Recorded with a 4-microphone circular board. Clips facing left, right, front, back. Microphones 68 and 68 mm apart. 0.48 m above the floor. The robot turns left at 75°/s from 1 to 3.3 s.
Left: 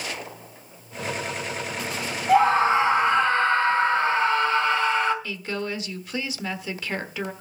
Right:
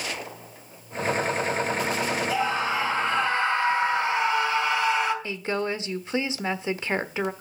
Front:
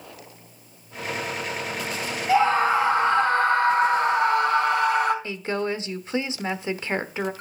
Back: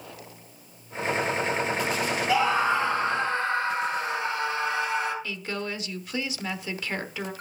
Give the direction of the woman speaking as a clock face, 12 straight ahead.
1 o'clock.